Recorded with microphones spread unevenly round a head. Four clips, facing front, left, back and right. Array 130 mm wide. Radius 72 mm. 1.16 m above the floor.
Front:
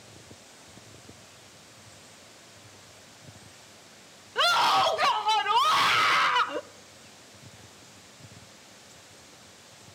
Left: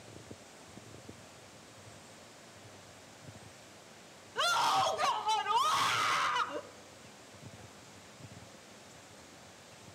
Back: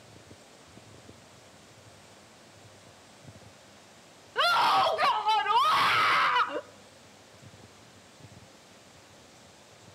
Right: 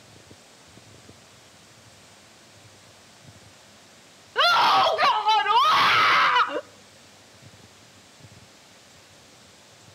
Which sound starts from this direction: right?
A scream, at 4.3 s.